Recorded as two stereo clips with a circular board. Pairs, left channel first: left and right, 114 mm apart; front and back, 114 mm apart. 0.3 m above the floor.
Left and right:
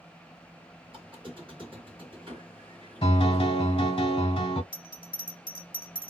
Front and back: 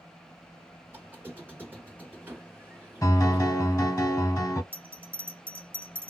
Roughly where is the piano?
Ahead left.